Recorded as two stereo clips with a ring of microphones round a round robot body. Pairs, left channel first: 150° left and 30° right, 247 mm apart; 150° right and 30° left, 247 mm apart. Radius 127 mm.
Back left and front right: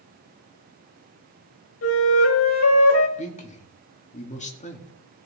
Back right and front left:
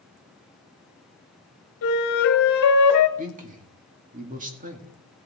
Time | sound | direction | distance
1.8 | a flute | 175° right | 1.5 m
3.2 | a man speaking | 90° left | 2 m